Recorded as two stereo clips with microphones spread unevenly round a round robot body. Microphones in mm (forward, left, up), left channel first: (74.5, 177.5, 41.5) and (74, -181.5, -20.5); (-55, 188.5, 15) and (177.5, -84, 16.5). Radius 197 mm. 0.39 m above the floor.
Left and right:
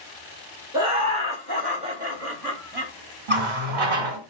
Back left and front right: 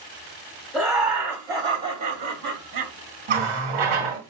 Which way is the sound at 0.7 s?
135° right.